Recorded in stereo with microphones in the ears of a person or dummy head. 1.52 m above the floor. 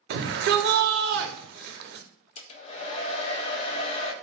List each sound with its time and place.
0.1 s a shout: 60° right (ahead or behind), 0.6 m
2.4 s a hair dryer: 35° left (ahead or behind), 0.5 m